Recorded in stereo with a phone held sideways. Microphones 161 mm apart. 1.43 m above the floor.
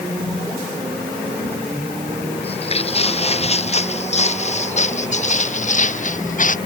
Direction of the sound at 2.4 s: 35° left (ahead or behind).